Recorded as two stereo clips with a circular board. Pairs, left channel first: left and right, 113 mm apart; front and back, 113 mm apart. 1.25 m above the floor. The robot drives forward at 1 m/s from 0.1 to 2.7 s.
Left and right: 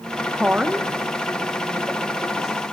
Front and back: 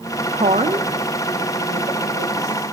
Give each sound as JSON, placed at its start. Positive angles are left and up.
{"t": 0.3, "sound": "a woman speaking", "azimuth_deg": -165, "distance_m": 0.8}